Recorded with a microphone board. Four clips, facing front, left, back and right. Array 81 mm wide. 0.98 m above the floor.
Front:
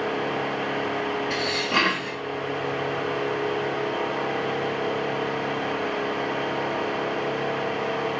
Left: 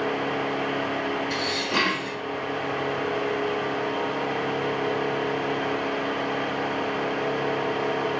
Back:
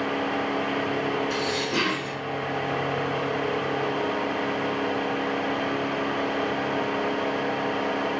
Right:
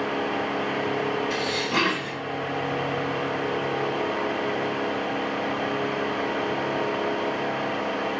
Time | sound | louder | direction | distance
1.3 | dishes clattering | right 1 dB, front 1 dB | 5° left | 3.5 m